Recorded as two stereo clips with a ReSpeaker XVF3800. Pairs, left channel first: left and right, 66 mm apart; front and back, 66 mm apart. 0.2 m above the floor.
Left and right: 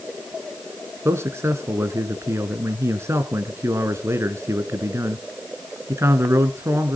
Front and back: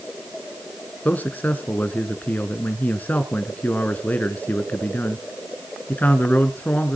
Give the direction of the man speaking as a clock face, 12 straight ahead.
2 o'clock.